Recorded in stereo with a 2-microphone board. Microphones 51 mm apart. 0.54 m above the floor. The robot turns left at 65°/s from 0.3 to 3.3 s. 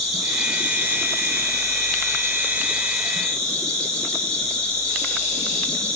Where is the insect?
5° right, 2 m; by 6.0 s 160° left, 2 m.